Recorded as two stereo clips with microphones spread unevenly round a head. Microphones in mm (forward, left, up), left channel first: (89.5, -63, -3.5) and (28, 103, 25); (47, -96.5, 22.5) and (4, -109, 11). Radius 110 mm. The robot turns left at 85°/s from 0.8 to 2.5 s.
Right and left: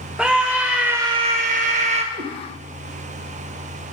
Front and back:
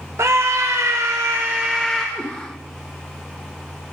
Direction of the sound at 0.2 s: 175° right.